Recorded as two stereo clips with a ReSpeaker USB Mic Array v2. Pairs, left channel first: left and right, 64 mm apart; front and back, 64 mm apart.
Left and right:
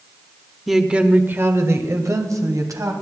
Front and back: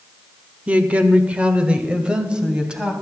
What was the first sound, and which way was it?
A woman speaking, 175° right.